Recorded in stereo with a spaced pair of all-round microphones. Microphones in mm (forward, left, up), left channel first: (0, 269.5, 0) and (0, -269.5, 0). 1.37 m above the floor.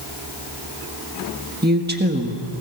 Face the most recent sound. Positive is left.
turn(degrees=-20)  # may be behind; listen again after turning